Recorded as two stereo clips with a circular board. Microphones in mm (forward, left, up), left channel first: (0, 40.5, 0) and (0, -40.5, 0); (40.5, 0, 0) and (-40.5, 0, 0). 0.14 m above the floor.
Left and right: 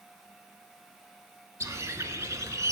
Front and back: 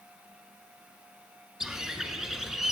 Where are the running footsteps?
No running footsteps in this recording.